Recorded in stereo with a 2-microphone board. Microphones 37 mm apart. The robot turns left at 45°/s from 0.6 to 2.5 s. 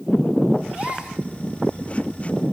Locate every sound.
0.7 s a gasp: 40° right (ahead or behind), 4 m; by 1.2 s 15° right (ahead or behind), 4 m